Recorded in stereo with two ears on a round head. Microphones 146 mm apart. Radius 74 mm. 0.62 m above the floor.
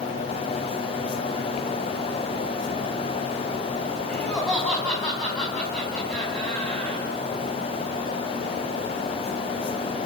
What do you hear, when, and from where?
4.1 s laughter: 5° left (ahead or behind), 4 m